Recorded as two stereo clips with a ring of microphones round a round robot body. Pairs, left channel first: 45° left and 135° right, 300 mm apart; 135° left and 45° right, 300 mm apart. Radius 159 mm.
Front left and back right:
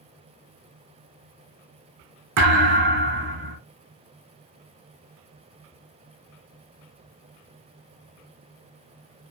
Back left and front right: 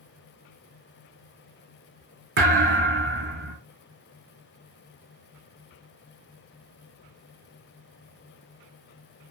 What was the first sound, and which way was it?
A thud, 95° right.